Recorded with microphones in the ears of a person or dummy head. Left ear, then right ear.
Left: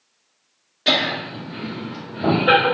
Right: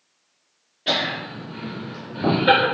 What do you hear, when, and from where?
0.9 s laughter: 55° left (ahead or behind), 0.6 m; by 2.6 s 35° right (ahead or behind), 0.8 m